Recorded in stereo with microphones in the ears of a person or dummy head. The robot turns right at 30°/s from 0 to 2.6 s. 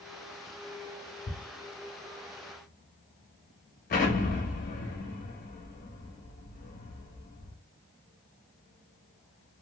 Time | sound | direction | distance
1.3 | ticking | 40° left (ahead or behind) | 1.2 m
3.9 | an explosion | 45° left (ahead or behind) | 1.1 m